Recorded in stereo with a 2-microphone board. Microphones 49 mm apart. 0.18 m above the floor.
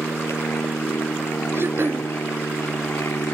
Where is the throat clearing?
55° right (ahead or behind).